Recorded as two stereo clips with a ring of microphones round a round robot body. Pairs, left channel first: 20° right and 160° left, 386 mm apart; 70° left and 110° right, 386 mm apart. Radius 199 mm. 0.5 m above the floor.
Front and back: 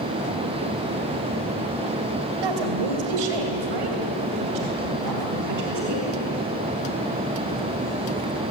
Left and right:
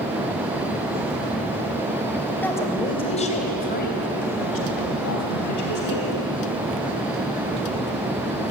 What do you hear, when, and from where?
2.4 s a woman speaking: 155° left, 2.5 m; by 6.1 s 110° left, 4 m